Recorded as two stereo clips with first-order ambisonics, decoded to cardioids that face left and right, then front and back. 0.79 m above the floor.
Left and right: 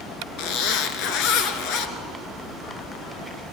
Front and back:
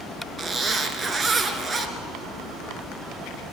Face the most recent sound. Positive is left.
turn(degrees=115)